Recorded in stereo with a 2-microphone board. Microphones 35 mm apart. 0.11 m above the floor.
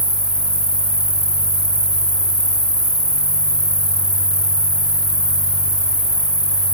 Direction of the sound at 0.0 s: 30° left (ahead or behind).